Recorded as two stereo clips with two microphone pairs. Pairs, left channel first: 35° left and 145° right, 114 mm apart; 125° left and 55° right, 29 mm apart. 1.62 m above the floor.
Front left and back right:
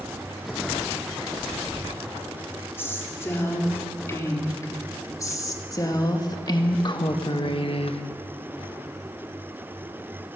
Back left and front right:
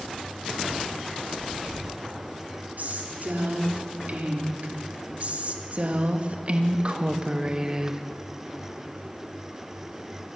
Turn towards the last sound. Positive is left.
turn(degrees=10)